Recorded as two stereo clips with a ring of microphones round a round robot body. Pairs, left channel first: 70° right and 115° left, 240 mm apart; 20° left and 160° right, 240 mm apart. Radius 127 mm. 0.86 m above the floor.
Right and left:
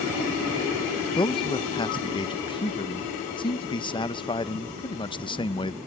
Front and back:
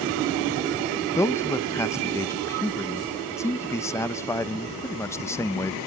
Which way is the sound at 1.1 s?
35° right.